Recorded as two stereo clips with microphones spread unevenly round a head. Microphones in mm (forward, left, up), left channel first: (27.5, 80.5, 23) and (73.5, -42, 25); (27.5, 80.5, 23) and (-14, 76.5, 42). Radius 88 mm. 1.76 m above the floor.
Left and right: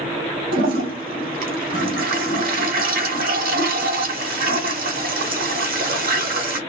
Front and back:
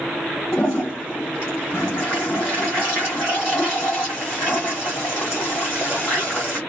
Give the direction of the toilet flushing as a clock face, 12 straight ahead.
2 o'clock.